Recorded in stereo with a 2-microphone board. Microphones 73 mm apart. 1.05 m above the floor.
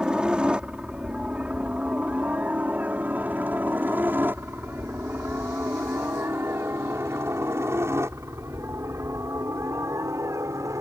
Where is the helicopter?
10° right (ahead or behind); by 10.8 s 45° right (ahead or behind).